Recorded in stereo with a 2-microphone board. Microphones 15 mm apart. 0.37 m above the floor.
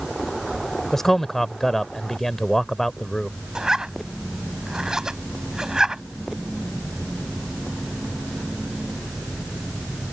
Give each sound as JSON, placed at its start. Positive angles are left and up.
{"t": 0.9, "sound": "a man speaking", "side_deg": 20}
{"t": 3.5, "sound": "a zipper", "side_deg": -50}